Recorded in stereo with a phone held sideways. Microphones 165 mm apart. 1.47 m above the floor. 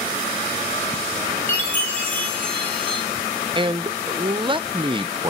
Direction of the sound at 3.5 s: 30° right (ahead or behind).